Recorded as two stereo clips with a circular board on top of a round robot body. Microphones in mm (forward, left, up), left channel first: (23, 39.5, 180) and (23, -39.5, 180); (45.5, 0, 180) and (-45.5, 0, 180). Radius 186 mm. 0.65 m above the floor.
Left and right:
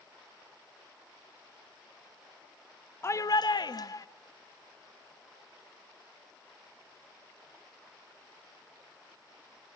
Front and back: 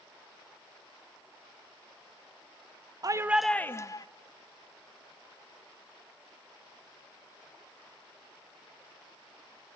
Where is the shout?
140° left, 0.8 m; by 4.1 s 45° left, 1.2 m.